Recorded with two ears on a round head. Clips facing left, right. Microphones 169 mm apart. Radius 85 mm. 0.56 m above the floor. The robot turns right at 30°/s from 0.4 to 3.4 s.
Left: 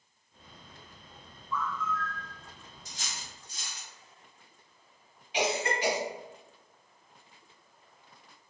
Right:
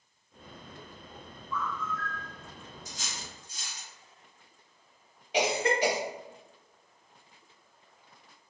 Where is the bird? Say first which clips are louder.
Left 1 dB; 20° left (ahead or behind), 1.1 m; by 2.3 s 35° left (ahead or behind), 1.1 m.